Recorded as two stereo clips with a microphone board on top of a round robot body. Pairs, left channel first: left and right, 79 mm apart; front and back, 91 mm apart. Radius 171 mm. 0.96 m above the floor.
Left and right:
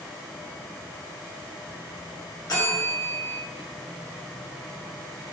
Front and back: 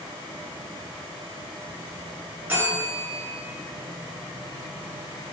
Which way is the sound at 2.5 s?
115° left.